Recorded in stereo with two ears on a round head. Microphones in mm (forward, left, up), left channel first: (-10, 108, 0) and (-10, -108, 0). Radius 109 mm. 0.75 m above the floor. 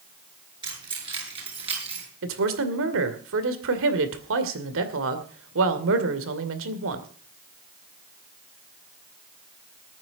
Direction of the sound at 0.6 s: 20° right (ahead or behind).